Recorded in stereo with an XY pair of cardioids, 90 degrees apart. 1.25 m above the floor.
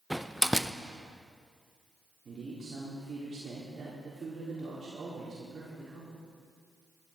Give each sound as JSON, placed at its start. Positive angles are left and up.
{"t": 0.1, "sound": "a door slam", "azimuth_deg": 0, "distance_m": 0.5}
{"t": 2.2, "sound": "a man speaking", "azimuth_deg": -45, "distance_m": 4.0}